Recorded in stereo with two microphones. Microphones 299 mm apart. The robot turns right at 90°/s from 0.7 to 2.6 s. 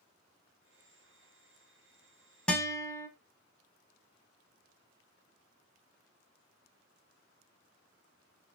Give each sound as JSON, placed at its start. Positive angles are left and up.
{"t": 2.5, "sound": "a guitar", "side_deg": 5, "distance_m": 0.7}